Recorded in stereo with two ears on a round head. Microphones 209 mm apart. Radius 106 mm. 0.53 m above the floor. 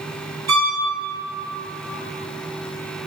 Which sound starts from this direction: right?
A violin, at 0.5 s.